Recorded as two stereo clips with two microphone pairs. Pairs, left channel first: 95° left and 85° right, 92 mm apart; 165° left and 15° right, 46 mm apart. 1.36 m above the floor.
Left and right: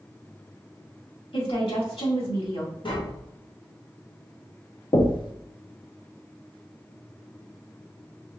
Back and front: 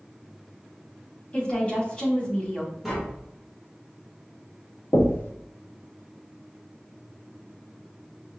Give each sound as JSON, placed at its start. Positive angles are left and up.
{"t": 1.3, "sound": "a woman speaking", "azimuth_deg": 100, "distance_m": 2.5}
{"t": 2.8, "sound": "tapping", "azimuth_deg": 70, "distance_m": 1.4}
{"t": 4.9, "sound": "knocking", "azimuth_deg": 125, "distance_m": 0.7}